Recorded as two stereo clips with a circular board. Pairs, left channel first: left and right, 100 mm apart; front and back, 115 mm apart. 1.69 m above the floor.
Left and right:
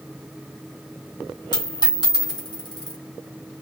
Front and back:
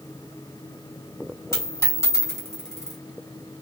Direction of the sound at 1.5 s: 60° left.